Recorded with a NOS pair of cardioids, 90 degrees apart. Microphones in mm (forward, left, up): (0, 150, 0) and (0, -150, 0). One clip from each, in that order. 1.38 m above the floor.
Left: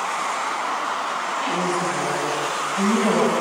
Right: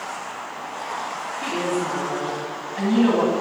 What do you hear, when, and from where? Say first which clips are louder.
1.4 s a woman speaking: even; 65° left, 10 m